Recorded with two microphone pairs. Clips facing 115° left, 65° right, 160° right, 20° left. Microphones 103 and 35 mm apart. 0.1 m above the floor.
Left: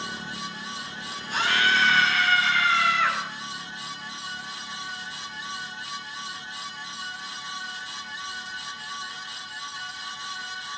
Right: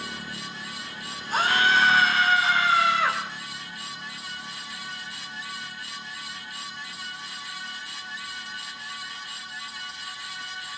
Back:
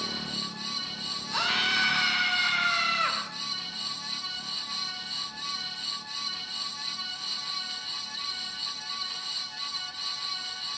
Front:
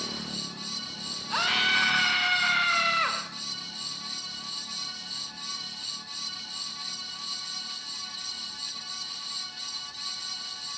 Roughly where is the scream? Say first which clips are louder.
Right 2 dB, front 2 dB; ahead.